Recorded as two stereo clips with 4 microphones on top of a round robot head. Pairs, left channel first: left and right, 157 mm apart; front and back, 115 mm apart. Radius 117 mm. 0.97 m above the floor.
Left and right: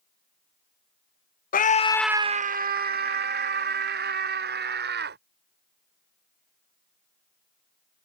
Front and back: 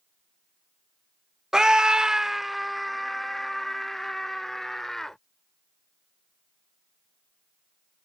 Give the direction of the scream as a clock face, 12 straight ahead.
9 o'clock.